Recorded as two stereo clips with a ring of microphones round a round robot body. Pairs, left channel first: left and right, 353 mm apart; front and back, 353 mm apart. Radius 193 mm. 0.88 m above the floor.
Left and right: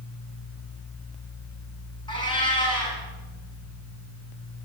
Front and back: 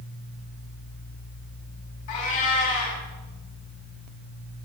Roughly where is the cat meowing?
Ahead.